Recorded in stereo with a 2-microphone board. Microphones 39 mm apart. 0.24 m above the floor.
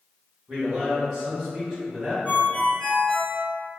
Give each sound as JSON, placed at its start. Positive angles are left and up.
{"t": 0.5, "sound": "a man speaking", "side_deg": -15, "distance_m": 1.1}
{"t": 2.2, "sound": "a ringtone", "side_deg": 30, "distance_m": 1.5}